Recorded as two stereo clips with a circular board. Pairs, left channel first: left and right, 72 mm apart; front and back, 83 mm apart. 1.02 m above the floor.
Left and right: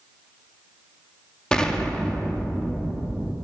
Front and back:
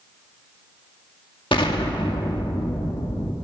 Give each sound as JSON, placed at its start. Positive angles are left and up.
{"t": 1.5, "sound": "an explosion", "azimuth_deg": 10, "distance_m": 2.0}